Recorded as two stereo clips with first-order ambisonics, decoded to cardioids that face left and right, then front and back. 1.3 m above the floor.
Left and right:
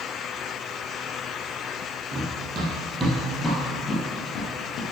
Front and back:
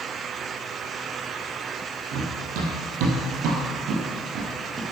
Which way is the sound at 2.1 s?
150° right.